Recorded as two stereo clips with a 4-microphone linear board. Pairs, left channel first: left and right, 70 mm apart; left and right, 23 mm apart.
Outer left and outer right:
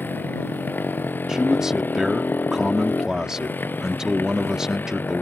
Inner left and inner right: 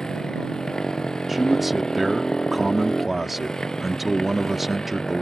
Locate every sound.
0.0 s a motorcycle: 25° left (ahead or behind)
1.3 s a man speaking: 10° right (ahead or behind)